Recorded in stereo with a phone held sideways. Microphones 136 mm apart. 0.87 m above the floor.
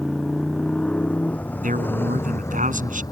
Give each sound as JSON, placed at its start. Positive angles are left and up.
{"t": 0.0, "sound": "a motorcycle", "side_deg": 5}
{"t": 1.6, "sound": "a man speaking", "side_deg": -75}